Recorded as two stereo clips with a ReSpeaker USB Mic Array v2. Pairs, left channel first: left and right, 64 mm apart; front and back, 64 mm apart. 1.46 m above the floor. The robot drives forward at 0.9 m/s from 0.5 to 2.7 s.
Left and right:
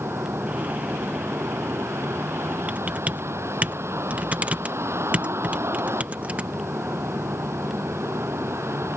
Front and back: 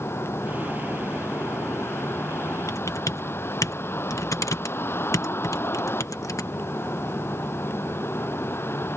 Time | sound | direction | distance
0.0 | a vehicle | 45° right | ?
2.7 | typing on a keyboard | 25° right | ?